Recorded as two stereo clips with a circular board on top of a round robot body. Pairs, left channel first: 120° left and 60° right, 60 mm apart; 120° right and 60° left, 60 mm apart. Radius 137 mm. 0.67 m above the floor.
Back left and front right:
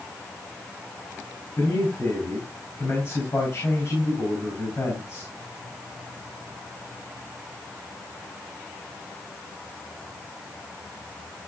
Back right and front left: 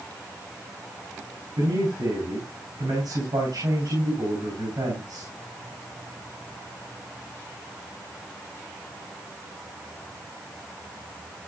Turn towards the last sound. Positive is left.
turn(degrees=65)